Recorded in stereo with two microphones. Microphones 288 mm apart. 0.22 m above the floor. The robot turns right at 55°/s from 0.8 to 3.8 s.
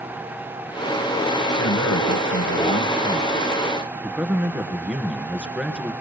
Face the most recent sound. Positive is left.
turn(degrees=-175)